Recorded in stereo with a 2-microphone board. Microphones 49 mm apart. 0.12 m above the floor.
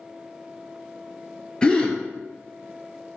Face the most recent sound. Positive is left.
turn(degrees=15)  # may be behind; listen again after turning